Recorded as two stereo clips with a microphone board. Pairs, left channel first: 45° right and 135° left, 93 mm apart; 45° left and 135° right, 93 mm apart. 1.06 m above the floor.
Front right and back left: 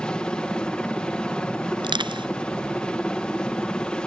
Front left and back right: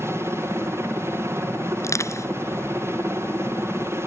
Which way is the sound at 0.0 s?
115° right.